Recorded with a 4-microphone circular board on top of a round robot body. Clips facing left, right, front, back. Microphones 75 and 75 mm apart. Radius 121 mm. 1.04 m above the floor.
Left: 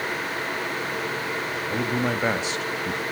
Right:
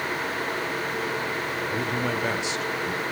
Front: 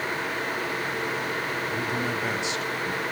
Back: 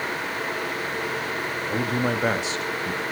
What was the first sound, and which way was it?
A man speaking, 150° left.